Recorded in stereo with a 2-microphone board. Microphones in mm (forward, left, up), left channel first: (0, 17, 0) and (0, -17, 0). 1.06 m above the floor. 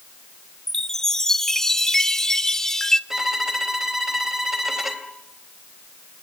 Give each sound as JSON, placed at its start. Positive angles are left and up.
{"t": 0.7, "sound": "a chime", "side_deg": 15, "distance_m": 0.9}
{"t": 3.1, "sound": "a violin", "side_deg": -10, "distance_m": 3.0}